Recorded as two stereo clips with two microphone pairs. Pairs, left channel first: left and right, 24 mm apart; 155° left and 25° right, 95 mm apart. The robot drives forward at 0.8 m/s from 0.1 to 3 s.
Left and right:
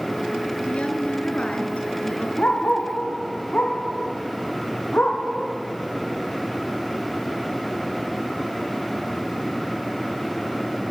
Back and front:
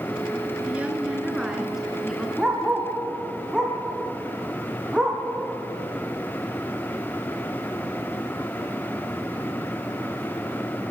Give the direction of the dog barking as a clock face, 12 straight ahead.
10 o'clock.